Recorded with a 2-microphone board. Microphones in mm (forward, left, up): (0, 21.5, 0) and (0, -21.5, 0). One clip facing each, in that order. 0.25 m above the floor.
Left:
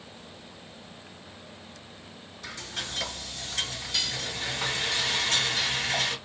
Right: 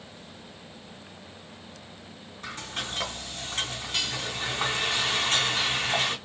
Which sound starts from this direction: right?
Frying, at 2.4 s.